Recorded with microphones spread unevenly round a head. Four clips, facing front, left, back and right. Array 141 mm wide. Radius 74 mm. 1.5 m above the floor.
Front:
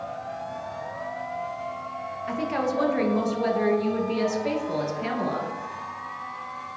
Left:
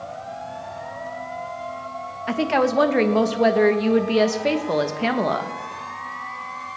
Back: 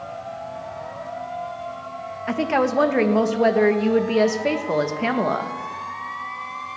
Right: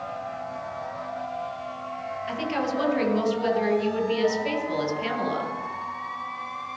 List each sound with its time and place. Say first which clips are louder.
2.3 s a woman speaking: left 8 dB, back 6 dB; 130° left, 1.3 m